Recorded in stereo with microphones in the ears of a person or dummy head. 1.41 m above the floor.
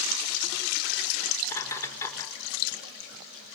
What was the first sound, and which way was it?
Laughter, 15° left (ahead or behind).